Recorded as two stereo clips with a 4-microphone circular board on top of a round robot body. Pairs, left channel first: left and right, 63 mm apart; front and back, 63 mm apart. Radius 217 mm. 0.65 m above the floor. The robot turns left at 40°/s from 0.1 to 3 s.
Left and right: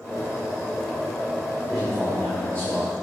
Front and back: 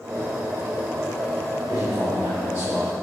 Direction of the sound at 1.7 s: Straight behind.